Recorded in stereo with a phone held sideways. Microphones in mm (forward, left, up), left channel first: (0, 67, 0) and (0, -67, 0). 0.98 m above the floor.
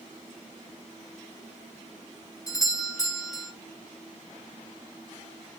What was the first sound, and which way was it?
A doorbell, 25° left (ahead or behind).